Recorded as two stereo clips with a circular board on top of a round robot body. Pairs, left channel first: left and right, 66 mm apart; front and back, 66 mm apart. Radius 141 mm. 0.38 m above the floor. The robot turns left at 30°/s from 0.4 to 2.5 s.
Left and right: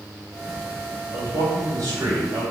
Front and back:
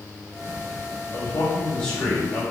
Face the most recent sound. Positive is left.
turn(degrees=-95)